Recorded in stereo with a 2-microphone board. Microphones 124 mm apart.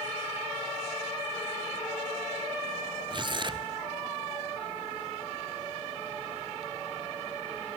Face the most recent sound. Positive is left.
turn(degrees=-40)  # may be behind; listen again after turning